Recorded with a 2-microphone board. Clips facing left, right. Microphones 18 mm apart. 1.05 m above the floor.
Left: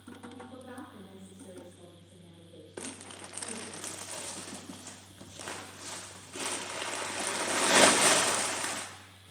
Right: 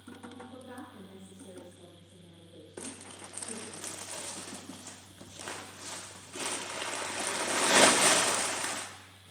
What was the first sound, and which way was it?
A woman speaking, 80° left.